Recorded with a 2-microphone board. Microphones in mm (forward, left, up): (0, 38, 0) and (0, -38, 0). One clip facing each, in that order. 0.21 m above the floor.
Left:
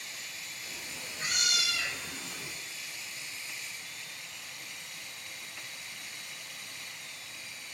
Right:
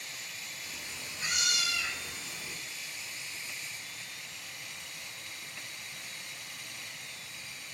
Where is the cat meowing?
45° left (ahead or behind), 1.6 m; by 2.5 s 60° left (ahead or behind), 0.6 m.